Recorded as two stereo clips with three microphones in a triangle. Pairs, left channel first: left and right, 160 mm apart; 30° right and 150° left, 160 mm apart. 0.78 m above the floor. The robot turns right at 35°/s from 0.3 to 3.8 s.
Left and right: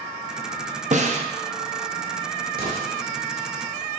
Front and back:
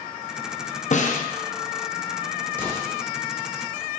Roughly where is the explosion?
Right.